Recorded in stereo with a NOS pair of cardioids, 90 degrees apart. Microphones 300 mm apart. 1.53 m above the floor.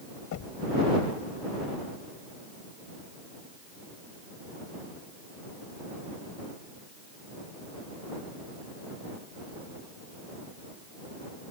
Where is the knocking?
70° left.